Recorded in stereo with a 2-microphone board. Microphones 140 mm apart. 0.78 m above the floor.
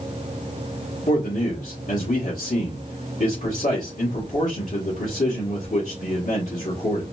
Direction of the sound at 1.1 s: 55° left (ahead or behind).